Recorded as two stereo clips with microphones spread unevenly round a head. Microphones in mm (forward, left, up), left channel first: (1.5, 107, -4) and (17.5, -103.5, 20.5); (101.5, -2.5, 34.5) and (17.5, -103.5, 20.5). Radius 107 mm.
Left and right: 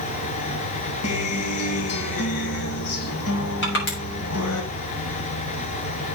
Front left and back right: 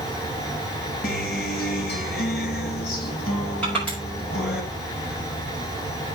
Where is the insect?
125° left, 6 m.